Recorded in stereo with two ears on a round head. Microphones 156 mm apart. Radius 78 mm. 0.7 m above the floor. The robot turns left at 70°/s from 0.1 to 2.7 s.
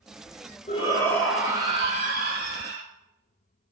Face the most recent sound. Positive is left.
turn(degrees=-100)